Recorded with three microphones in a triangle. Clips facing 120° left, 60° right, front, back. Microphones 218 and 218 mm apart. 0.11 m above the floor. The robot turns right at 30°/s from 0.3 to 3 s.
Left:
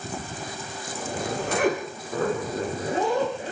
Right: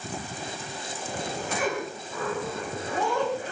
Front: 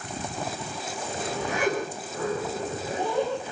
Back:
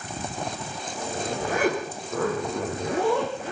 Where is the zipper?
125° left, 8.5 m; by 3.5 s 170° right, 8.5 m.